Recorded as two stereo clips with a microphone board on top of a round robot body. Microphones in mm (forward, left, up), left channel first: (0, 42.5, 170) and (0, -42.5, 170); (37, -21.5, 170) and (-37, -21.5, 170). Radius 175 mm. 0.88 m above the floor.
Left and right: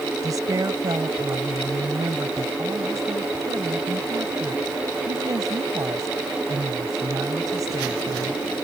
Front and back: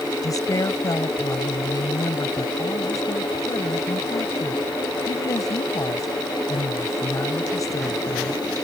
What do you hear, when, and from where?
0.2 s a woman speaking: 40° right